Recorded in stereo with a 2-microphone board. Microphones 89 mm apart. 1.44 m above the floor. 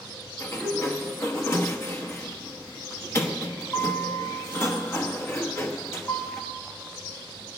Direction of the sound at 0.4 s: 30° left (ahead or behind).